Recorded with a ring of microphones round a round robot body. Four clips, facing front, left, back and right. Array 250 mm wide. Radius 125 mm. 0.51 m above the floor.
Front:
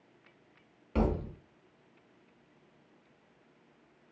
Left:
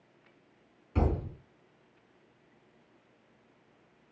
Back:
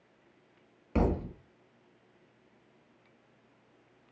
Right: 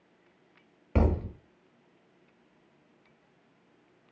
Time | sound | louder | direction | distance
0.9 | a thud | right 3 dB, back 1 dB | 105° right | 0.8 m